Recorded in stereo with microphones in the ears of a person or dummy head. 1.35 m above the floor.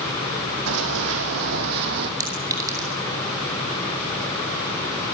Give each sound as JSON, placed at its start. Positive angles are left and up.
{"t": 0.7, "sound": "running footsteps", "side_deg": -75, "distance_m": 5.0}
{"t": 2.2, "sound": "a clink", "side_deg": -20, "distance_m": 2.5}